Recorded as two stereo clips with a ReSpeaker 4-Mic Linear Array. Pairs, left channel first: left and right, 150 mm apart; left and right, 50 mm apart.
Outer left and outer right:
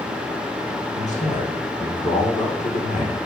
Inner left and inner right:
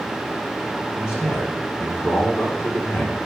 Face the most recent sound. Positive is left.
turn(degrees=60)  # may be behind; listen again after turning